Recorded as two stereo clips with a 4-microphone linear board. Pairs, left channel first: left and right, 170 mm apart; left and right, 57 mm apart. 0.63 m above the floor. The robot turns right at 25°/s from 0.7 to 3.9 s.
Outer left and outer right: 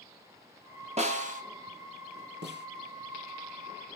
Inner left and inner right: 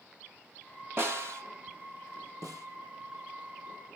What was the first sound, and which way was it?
A snare drum, 40° right (ahead or behind).